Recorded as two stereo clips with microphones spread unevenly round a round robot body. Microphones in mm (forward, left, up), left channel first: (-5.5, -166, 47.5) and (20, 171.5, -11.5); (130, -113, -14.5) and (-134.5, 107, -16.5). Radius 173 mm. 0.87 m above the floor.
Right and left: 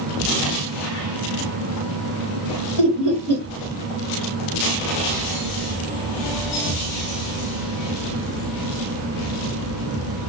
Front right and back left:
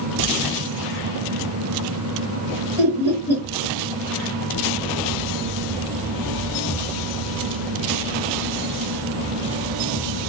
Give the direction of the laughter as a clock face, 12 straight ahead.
10 o'clock.